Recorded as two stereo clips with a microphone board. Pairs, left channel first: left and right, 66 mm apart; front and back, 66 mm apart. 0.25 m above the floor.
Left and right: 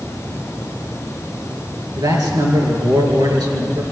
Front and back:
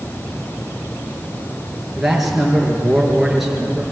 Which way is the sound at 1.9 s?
95° right.